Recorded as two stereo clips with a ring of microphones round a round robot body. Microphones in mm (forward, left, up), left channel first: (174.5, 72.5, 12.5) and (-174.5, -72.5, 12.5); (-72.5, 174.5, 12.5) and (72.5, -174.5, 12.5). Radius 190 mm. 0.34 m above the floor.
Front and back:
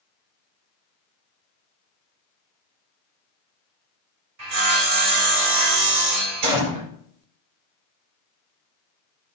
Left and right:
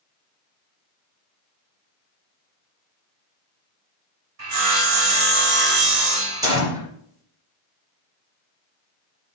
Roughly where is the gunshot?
Behind right.